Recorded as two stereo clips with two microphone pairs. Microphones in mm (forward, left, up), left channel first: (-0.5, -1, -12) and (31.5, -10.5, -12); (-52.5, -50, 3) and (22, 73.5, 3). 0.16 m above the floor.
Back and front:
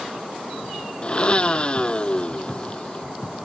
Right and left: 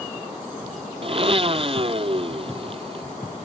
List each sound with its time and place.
1.0 s a blender: 105° left